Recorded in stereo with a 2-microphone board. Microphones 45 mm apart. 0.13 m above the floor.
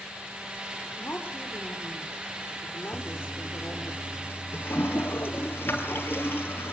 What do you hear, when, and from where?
1.0 s a woman speaking: 50° left (ahead or behind), 6.5 m
2.9 s a toilet flushing: 55° left (ahead or behind), 3 m